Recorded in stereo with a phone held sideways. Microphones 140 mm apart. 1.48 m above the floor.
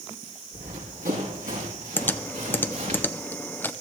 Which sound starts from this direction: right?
Running footsteps, at 0.5 s.